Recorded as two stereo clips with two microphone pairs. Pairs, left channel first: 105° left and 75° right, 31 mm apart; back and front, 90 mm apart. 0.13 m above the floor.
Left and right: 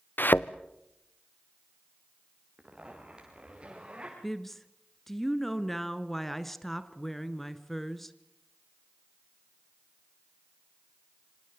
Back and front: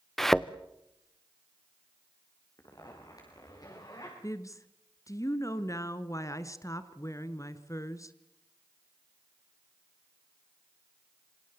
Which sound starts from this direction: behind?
A woman speaking, at 4.2 s.